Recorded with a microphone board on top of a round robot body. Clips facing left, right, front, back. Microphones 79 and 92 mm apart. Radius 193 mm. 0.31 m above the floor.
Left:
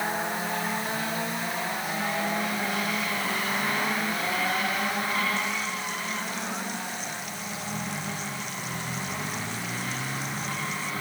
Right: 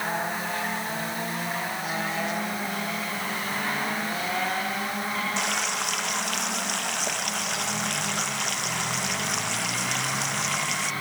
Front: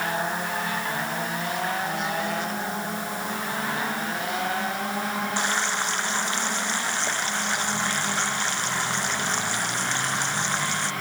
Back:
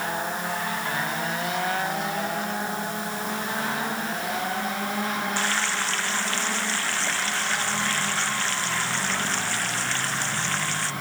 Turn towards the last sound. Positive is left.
turn(degrees=-70)